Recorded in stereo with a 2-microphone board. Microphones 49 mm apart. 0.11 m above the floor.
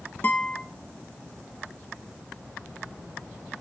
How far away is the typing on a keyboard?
I don't hear typing on a keyboard.